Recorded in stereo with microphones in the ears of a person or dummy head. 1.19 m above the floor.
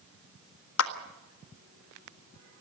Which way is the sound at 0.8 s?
75° left (ahead or behind).